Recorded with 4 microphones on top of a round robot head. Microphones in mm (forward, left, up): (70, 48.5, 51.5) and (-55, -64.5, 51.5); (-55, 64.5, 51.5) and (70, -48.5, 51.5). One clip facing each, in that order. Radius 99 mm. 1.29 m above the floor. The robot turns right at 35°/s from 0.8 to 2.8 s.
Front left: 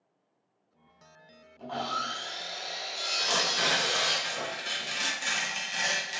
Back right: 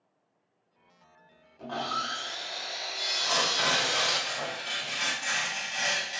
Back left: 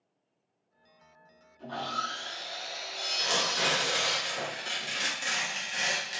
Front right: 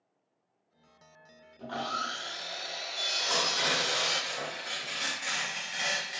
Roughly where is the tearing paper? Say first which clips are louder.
Back right 1 dB, back left 1 dB; left.